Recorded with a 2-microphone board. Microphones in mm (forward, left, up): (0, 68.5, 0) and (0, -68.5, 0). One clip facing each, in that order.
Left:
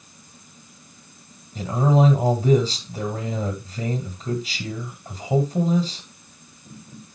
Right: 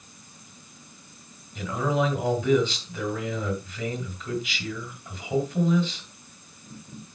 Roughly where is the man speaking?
Left.